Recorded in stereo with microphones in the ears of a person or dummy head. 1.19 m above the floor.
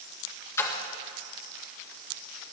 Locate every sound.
0.6 s a splash: 15° left (ahead or behind), 2.5 m